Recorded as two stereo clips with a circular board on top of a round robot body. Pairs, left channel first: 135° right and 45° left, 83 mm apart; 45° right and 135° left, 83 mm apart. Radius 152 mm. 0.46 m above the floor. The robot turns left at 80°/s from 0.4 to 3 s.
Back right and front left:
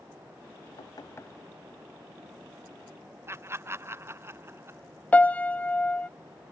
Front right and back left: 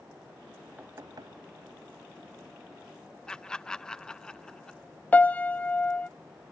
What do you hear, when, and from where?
0.8 s knocking: 160° right; by 1.4 s 155° left
3.3 s laughter: 25° left
5.1 s a piano: 90° right